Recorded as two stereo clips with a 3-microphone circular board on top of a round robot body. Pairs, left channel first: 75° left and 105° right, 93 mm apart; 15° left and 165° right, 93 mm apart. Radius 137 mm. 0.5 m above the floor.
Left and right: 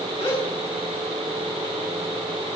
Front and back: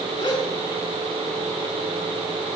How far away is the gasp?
About 8.5 m.